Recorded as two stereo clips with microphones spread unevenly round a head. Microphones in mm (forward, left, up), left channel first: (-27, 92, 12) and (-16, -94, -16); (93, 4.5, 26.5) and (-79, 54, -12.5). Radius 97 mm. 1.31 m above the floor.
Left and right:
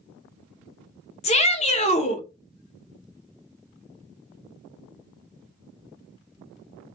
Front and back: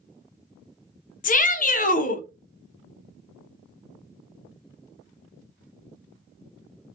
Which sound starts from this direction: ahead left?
A shout, at 1.2 s.